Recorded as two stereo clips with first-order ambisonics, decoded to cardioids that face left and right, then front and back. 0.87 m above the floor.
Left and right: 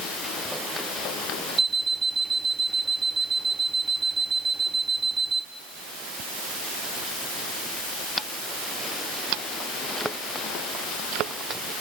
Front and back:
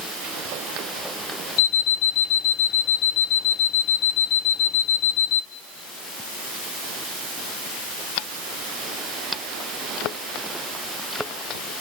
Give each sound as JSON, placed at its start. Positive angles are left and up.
{"t": 1.6, "sound": "an alarm clock", "azimuth_deg": -15, "distance_m": 0.8}